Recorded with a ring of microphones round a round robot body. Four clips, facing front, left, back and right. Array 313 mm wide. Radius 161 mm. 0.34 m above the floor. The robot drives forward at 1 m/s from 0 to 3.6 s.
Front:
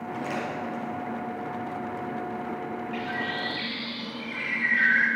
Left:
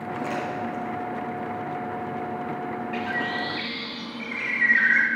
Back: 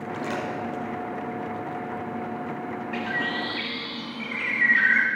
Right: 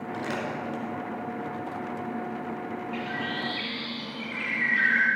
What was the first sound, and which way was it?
Crumpling, 130° right.